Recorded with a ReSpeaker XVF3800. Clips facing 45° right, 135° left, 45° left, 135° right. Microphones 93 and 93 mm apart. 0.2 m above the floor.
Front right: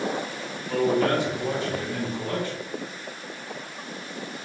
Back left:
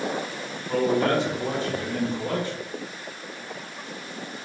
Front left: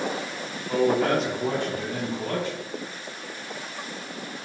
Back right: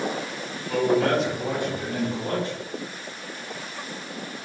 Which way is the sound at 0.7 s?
90° left.